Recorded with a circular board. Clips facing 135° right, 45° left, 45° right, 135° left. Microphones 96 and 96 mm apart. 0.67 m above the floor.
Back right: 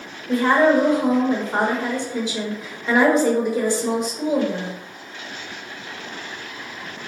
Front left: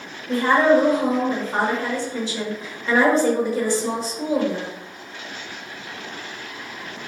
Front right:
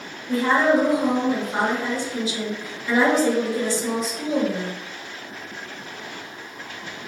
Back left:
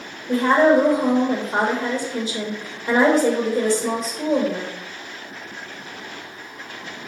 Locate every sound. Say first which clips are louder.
0.3 s a woman speaking: even, back left 3 dB; 145° left, 1.1 m